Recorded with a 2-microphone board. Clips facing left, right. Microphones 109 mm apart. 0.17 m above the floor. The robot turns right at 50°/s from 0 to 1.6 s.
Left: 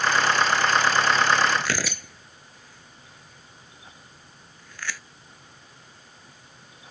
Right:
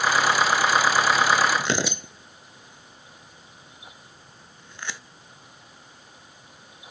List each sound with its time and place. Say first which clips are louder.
1.6 s tearing paper: right 3 dB; 25° right (ahead or behind)